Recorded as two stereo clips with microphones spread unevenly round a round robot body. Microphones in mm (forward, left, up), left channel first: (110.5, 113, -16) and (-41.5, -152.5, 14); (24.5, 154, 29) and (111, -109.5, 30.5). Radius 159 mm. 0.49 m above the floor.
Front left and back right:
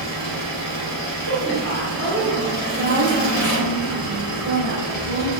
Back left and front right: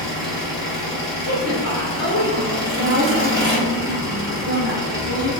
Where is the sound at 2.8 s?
85° right, 1.0 m.